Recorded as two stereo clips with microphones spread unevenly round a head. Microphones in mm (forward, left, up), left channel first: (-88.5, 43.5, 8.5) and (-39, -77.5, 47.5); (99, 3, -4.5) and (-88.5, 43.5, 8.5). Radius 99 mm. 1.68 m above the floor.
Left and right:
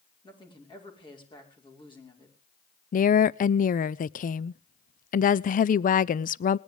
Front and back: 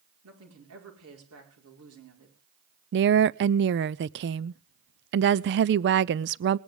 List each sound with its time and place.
0.2 s a woman speaking: 165° left, 5.5 m
2.9 s a woman speaking: 135° left, 0.5 m